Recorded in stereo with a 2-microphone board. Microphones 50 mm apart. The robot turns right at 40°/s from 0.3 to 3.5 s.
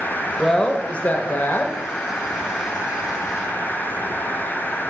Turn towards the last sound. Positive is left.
turn(degrees=140)